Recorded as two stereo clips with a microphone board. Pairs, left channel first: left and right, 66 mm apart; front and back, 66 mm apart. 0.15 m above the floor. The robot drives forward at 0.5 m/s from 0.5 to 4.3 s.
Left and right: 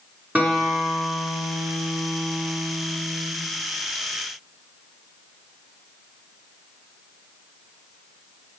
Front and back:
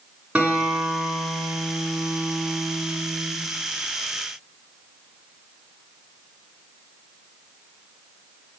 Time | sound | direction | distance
0.3 | a guitar | 120° right | 1.9 m